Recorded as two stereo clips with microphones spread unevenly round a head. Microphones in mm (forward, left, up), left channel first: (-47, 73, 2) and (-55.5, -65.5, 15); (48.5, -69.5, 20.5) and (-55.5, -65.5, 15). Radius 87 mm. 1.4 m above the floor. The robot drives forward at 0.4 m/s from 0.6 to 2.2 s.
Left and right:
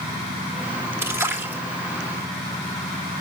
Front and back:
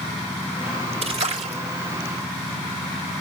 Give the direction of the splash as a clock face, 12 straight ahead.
6 o'clock.